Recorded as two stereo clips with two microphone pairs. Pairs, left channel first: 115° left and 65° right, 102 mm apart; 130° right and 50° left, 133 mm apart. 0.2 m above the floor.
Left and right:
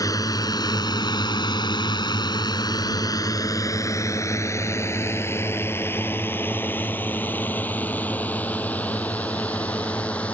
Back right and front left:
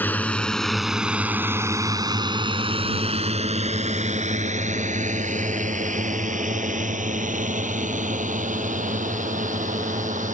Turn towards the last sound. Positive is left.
turn(degrees=35)